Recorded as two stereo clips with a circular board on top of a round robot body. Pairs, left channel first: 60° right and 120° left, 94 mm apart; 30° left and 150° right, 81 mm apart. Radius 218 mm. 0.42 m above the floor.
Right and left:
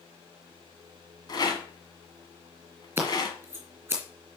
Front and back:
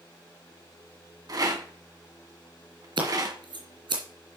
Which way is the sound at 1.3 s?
110° right.